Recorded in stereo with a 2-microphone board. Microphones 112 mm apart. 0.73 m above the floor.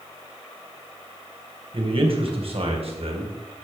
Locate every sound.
1.7 s a man speaking: 55° right (ahead or behind), 3 m; by 3.3 s 65° right (ahead or behind), 3.5 m